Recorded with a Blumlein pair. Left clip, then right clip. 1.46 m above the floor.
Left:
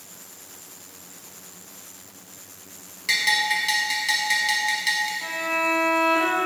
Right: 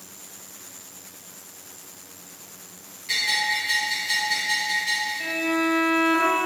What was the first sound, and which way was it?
A bell, 50° left.